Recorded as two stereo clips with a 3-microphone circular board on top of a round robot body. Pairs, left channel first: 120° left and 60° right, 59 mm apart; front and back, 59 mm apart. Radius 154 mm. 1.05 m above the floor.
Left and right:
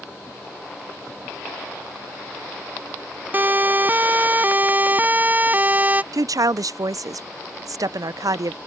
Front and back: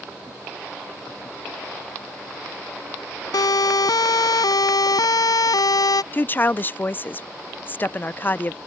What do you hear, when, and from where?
3.3 s a siren: straight ahead; by 6.0 s 5° left
6.1 s a woman speaking: 55° right